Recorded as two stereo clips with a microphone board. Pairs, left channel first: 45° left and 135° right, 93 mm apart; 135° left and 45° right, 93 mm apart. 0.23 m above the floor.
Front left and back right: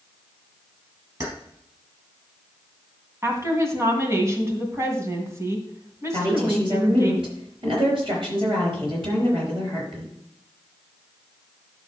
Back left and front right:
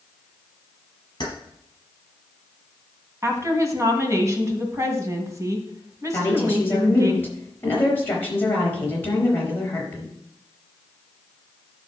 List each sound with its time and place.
1.2 s keys jangling: 175° left, 4 m
3.2 s a woman speaking: 90° right, 2.5 m
6.1 s a woman speaking: 160° right, 5 m